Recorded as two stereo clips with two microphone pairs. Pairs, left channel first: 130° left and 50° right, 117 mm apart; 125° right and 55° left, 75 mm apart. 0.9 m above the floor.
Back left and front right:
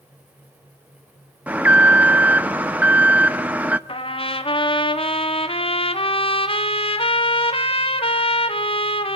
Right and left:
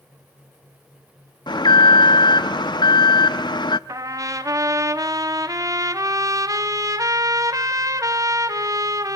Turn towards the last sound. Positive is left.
turn(degrees=95)